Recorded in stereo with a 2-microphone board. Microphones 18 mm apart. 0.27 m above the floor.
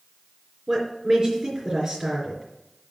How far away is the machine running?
I don't hear a machine running.